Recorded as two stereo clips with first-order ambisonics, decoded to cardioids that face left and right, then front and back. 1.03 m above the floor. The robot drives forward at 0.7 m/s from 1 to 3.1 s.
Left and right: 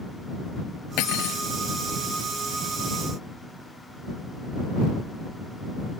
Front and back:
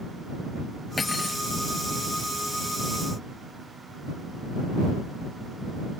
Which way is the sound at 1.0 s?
75° left.